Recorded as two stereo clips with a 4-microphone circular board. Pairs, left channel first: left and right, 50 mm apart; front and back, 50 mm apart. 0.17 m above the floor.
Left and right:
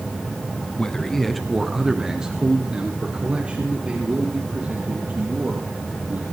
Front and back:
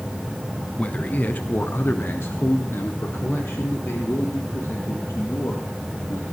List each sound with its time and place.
0.8 s a man speaking: 35° left, 1.3 m; by 6.2 s 30° right, 5.5 m